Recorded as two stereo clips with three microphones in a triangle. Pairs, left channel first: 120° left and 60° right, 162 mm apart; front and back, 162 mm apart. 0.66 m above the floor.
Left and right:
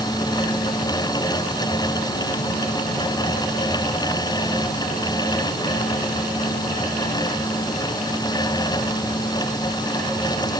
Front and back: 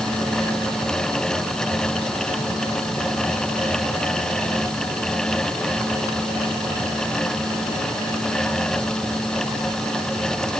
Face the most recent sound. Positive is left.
No sound to turn to.